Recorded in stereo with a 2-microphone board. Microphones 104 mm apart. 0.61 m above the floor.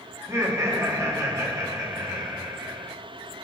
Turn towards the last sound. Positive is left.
turn(degrees=-30)  # may be behind; listen again after turning